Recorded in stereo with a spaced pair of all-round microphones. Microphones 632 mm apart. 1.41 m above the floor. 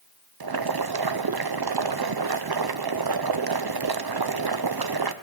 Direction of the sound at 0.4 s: 40° right (ahead or behind).